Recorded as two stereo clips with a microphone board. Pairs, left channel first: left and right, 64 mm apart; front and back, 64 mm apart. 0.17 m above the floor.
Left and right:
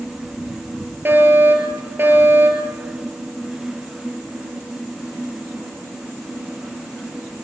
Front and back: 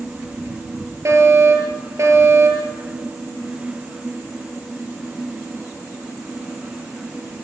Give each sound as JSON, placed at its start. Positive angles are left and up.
{"t": 1.1, "sound": "a fire alarm", "azimuth_deg": -140, "distance_m": 6.0}